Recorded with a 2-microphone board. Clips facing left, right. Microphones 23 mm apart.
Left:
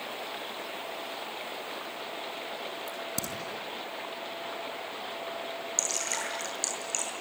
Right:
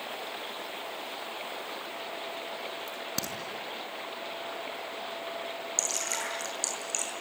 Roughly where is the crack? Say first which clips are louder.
Even; right.